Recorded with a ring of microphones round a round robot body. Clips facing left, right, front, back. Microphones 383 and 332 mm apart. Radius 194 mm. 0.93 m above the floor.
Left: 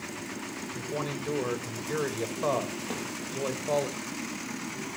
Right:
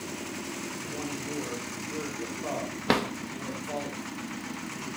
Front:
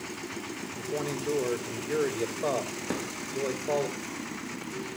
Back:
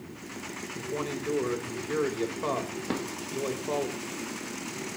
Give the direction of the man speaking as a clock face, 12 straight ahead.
9 o'clock.